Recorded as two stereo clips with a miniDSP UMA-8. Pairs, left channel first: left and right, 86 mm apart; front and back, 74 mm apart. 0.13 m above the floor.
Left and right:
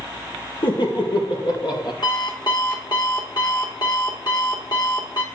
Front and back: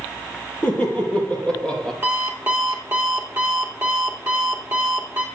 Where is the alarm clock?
120° left, 2.5 m.